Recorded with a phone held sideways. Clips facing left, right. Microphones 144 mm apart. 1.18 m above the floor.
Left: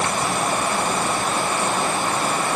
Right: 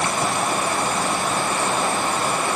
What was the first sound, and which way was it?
Only background noise.